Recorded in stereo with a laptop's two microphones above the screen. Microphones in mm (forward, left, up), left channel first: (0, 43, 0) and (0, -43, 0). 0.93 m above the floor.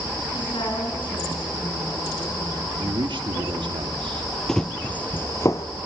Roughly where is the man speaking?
Right.